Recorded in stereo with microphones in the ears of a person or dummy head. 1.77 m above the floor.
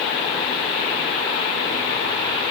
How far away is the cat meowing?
No cat meowing in this recording.